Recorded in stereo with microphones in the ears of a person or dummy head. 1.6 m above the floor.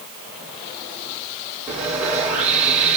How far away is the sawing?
About 3.5 m.